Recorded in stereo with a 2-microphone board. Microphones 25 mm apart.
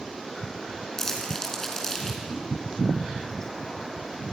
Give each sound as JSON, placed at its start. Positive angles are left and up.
{"t": 1.0, "sound": "crumpling", "side_deg": 15, "distance_m": 4.0}
{"t": 2.3, "sound": "a whoosh", "side_deg": -40, "distance_m": 5.0}